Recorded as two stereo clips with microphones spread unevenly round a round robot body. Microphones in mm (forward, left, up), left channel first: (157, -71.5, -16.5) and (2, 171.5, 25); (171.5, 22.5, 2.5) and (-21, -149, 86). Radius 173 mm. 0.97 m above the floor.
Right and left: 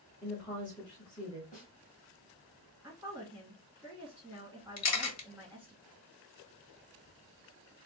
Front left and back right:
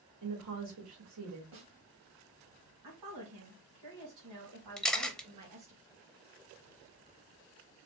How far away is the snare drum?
About 1.5 m.